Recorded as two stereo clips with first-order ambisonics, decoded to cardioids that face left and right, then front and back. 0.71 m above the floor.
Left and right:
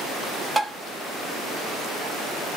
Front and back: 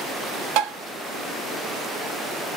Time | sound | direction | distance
0.6 | tapping | 170° right | 0.8 m